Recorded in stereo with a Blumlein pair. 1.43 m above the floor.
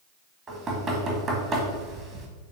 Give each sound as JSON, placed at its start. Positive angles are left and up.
{"t": 0.5, "sound": "knocking", "azimuth_deg": -25, "distance_m": 1.6}